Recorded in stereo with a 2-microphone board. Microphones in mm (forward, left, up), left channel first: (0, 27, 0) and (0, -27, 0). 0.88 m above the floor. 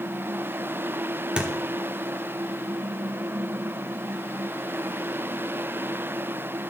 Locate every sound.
1.4 s a thud: 20° right (ahead or behind), 1.0 m